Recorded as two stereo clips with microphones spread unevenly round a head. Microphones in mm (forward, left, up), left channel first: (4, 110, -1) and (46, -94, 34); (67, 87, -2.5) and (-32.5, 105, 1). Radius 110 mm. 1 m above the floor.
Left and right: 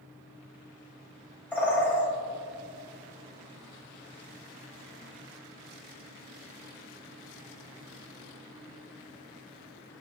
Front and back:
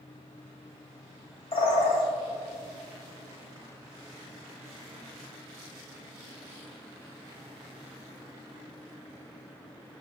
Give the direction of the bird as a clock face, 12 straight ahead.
11 o'clock.